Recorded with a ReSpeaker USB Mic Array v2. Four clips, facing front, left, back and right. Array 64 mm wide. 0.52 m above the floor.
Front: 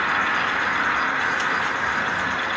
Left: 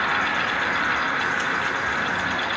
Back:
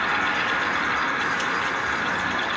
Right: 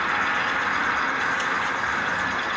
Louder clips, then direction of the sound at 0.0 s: Left 1 dB, front 2 dB; 5° left.